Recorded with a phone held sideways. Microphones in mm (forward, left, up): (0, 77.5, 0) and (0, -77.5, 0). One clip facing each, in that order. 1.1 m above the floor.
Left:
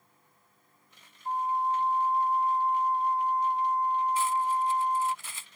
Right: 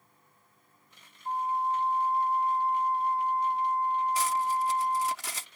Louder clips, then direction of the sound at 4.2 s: Left 1 dB; 75° right (ahead or behind).